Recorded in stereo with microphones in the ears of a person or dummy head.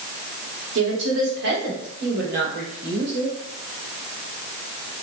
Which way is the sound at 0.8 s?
75° right (ahead or behind).